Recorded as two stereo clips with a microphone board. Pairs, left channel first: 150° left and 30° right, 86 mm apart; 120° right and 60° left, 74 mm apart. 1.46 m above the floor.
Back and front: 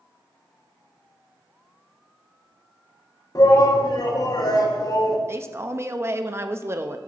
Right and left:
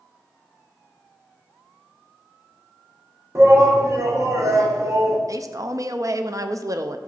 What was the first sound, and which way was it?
A shout, 110° left.